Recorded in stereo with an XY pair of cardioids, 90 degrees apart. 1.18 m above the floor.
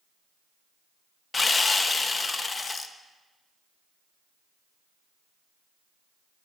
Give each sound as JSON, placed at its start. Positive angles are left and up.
{"t": 1.3, "sound": "sawing", "azimuth_deg": 40, "distance_m": 0.8}